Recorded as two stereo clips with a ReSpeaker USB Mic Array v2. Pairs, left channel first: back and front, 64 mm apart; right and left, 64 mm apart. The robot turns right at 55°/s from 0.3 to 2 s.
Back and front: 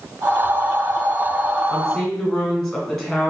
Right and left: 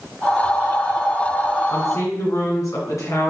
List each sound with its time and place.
1.7 s a woman speaking: 110° right, 1.8 m; by 3.3 s 95° right, 1.8 m